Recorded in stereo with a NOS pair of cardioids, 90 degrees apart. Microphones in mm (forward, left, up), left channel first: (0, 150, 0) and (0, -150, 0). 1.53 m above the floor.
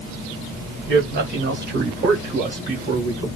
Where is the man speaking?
40° right, 2.5 m; by 3.3 s 25° right, 3.5 m.